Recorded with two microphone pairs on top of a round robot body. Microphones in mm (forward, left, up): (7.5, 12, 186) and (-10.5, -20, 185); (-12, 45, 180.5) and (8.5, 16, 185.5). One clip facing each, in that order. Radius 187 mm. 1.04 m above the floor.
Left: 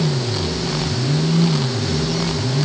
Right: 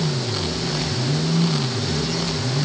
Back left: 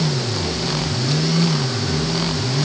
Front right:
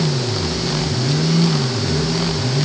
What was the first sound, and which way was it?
Only background noise.